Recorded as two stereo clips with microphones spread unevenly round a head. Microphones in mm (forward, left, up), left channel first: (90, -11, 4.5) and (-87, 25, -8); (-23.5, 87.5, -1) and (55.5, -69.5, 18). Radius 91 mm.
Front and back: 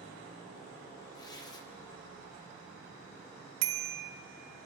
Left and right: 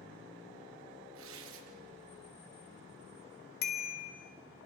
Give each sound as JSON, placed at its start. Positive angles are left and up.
{"t": 1.1, "sound": "tearing paper", "azimuth_deg": -85, "distance_m": 1.5}
{"t": 3.6, "sound": "a bicycle bell", "azimuth_deg": 160, "distance_m": 2.0}